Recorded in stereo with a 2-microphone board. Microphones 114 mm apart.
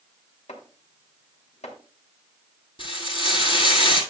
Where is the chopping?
75° left (ahead or behind), 3 m.